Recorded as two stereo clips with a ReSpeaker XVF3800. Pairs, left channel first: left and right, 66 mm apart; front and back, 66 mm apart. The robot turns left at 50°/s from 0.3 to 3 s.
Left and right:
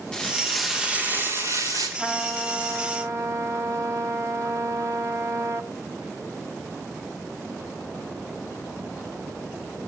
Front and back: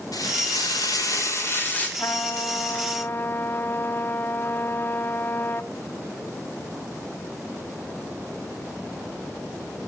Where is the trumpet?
10° right, 1.6 m; by 5.7 s 60° right, 1.6 m.